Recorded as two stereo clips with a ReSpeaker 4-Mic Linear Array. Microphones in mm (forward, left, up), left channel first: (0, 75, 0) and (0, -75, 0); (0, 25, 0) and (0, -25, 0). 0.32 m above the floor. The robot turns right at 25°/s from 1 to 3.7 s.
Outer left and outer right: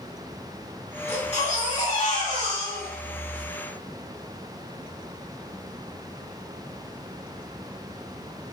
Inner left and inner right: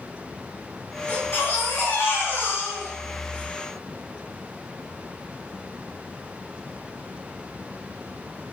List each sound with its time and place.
1.1 s a baby crying: 75° left, 1.2 m; by 3.5 s 135° left, 1.2 m